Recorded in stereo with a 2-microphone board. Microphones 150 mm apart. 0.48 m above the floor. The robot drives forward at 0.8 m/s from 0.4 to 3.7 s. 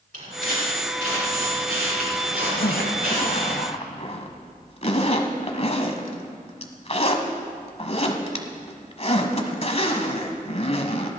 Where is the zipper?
85° left, 0.9 m; by 11.1 s 45° left (ahead or behind), 1.2 m.